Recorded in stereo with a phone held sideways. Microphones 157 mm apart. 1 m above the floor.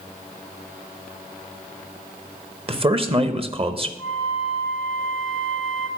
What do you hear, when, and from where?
2.7 s a man speaking: 35° right (ahead or behind), 0.8 m
4.0 s a flute: centre (ahead or behind), 2 m